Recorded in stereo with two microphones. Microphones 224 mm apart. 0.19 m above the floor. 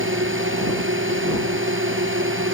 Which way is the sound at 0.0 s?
65° right (ahead or behind).